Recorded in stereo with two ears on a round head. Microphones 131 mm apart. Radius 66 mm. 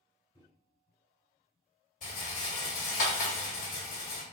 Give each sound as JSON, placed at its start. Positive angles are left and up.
{"t": 0.3, "sound": "a microwave", "side_deg": 30, "distance_m": 1.2}
{"t": 2.0, "sound": "a rattle", "side_deg": 50, "distance_m": 1.3}